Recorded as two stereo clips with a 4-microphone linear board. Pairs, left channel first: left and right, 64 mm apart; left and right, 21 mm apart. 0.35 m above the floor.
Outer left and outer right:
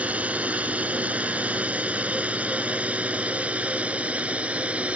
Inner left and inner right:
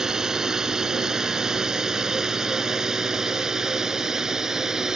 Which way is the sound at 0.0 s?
25° right (ahead or behind).